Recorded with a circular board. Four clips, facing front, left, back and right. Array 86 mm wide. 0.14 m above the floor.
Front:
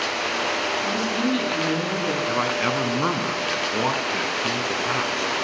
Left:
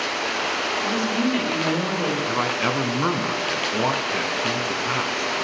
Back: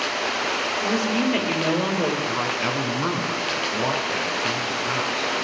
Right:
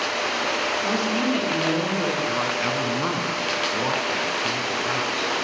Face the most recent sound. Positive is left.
turn(degrees=45)